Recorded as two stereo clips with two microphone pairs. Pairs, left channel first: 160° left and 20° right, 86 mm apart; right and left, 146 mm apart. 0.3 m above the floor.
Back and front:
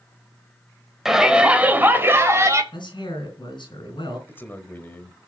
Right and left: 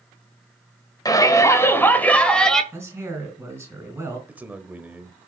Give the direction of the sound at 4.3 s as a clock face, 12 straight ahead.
7 o'clock.